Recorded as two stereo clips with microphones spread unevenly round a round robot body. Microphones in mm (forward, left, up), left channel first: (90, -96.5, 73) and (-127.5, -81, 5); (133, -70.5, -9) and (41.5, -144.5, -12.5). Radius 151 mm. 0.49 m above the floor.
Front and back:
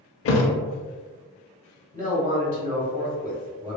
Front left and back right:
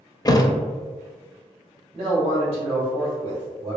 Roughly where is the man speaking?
Behind.